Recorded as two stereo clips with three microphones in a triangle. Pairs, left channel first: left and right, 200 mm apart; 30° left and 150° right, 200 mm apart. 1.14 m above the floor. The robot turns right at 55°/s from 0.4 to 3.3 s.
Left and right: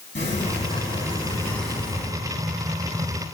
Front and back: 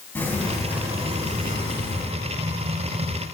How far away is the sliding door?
About 3.5 m.